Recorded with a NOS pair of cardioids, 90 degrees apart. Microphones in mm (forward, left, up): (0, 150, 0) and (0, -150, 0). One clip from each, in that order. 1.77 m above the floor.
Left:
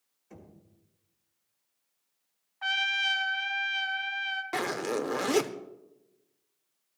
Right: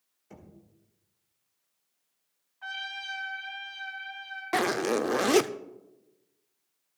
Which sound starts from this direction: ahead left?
A trumpet, at 2.6 s.